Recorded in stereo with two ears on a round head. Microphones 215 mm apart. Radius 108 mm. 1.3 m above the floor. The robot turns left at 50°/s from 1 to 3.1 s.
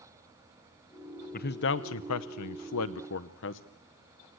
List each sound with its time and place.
1.3 s a man speaking: 35° left (ahead or behind), 0.9 m; by 3.6 s 50° left (ahead or behind), 0.9 m